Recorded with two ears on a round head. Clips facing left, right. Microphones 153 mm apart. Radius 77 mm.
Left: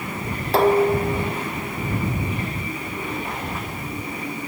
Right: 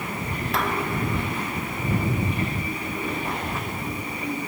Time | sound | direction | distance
0.5 | dishes clattering | 30° left (ahead or behind) | ?